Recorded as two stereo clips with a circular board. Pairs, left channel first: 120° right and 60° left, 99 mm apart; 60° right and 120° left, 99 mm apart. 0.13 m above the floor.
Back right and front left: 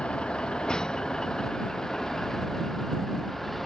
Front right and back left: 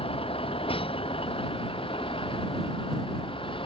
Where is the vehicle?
40° right; by 3.7 s 30° right.